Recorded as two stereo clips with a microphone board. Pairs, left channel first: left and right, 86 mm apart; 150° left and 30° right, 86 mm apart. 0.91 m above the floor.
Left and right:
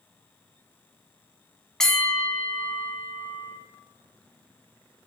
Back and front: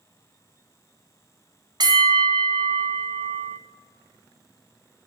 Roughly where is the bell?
Ahead.